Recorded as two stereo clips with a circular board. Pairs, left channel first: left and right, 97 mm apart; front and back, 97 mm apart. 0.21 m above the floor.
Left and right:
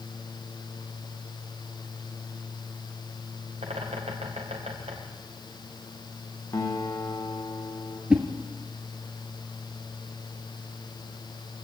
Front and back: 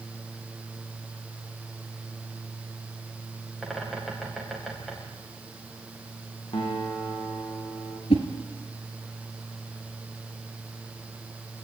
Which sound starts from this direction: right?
A bird, at 3.6 s.